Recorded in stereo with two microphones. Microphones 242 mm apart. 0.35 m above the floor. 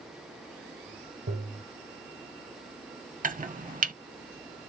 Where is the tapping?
80° right, 2.5 m.